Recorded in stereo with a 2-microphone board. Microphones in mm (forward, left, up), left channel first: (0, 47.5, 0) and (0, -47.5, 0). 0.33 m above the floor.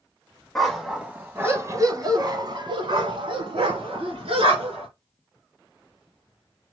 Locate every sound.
0.6 s a dog barking: 5° left (ahead or behind), 1.1 m; by 4.9 s 80° right, 2.5 m